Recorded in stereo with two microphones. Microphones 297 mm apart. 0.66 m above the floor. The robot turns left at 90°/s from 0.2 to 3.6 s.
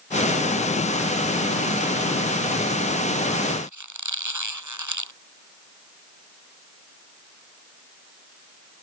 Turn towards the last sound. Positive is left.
turn(degrees=-75)  # may be behind; listen again after turning